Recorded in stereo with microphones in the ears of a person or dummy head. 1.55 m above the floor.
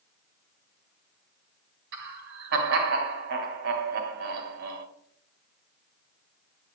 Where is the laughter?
75° right (ahead or behind), 2 m.